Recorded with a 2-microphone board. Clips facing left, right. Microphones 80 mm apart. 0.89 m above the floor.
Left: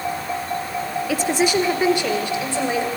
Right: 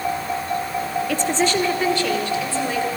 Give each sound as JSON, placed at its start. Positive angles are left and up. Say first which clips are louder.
{"t": 1.1, "sound": "a woman speaking", "louder": "left 2 dB", "side_deg": 5, "distance_m": 1.8}